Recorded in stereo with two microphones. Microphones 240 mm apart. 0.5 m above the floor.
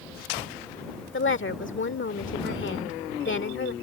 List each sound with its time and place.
1.1 s a woman speaking: 60° left (ahead or behind)